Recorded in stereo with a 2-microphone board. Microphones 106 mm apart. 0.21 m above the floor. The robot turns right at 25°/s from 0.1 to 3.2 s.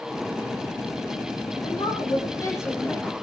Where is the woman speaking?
125° left, 9 m; by 3.1 s 165° left, 9 m.